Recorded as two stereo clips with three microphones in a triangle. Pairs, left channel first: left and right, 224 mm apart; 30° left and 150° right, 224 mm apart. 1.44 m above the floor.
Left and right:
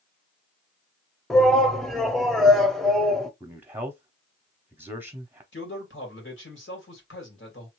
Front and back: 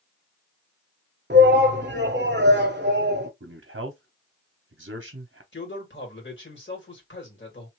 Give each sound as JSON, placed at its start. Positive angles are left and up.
{"t": 1.3, "sound": "a shout", "azimuth_deg": 180, "distance_m": 0.7}
{"t": 3.4, "sound": "a man speaking", "azimuth_deg": -170, "distance_m": 0.7}
{"t": 5.5, "sound": "a man speaking", "azimuth_deg": 60, "distance_m": 1.9}